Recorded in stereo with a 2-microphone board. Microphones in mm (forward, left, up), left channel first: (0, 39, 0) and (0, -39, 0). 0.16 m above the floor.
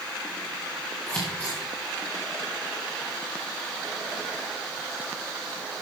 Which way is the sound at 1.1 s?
15° left (ahead or behind).